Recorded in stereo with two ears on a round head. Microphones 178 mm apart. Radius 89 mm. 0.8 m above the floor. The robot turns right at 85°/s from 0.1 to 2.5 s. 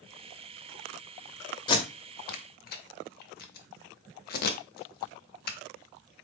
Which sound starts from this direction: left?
Tape being pulled, at 1.7 s.